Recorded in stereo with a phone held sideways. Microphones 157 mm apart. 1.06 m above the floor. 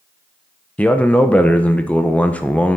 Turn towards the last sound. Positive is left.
turn(degrees=10)  # may be behind; listen again after turning